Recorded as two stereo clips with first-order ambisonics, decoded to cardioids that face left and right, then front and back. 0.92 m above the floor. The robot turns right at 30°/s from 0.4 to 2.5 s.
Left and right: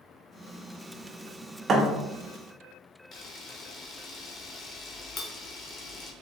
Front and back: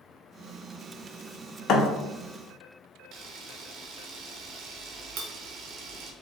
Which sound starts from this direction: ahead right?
A thud, at 1.7 s.